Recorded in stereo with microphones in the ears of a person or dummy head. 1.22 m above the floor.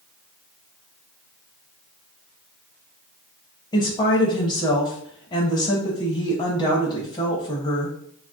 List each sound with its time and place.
3.7 s a woman speaking: 20° left (ahead or behind), 0.8 m